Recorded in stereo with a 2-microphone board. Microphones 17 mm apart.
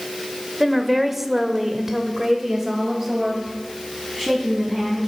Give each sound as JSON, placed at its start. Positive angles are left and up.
{"t": 0.6, "sound": "a woman speaking", "side_deg": -5, "distance_m": 1.0}